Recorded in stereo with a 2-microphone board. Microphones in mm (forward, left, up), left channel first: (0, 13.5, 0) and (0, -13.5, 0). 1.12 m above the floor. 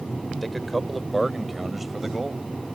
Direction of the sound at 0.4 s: 10° left (ahead or behind).